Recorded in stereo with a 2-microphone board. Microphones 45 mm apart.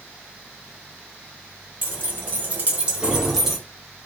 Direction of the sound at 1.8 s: 30° right (ahead or behind).